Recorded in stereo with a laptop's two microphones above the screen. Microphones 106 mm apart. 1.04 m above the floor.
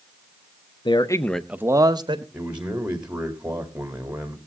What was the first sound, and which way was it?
A man speaking, 50° left (ahead or behind).